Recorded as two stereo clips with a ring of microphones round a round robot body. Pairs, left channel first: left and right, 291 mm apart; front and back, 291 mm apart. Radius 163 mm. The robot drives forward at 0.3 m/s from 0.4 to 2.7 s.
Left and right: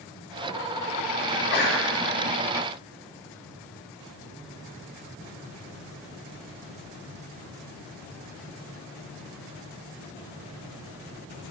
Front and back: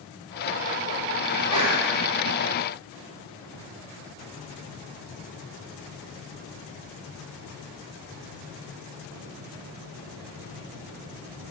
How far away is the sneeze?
About 5 m.